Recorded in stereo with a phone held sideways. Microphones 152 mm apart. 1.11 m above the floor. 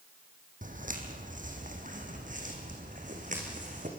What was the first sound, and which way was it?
Footsteps, 60° right (ahead or behind).